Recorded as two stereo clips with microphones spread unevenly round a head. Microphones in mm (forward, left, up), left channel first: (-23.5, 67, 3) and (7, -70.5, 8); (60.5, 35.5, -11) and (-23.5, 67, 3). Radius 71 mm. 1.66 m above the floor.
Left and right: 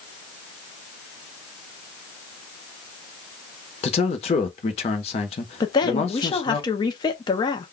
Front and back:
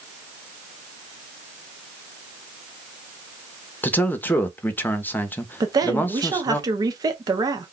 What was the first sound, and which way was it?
A man speaking, 50° left.